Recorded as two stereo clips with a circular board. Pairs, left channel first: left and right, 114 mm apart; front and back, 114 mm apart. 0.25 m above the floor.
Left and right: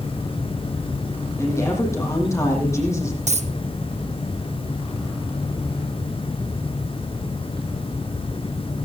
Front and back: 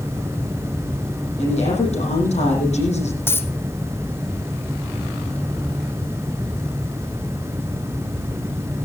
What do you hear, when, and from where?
1.4 s a woman speaking: 25° left, 8.5 m
3.3 s a dropped coin: 70° right, 1.4 m